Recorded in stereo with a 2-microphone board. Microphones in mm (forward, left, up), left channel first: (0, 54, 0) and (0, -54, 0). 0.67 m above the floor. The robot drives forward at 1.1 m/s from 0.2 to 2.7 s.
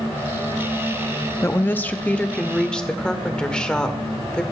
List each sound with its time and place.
1.4 s a woman speaking: 25° left (ahead or behind), 0.6 m; by 4.4 s 10° left (ahead or behind), 1.7 m